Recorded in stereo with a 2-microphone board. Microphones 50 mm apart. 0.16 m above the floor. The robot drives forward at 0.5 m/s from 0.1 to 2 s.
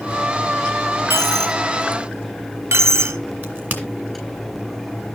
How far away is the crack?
About 2 m.